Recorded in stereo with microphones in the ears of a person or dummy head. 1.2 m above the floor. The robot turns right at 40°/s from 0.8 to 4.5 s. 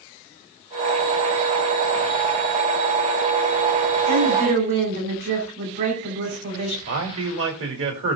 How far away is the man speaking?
About 3 m.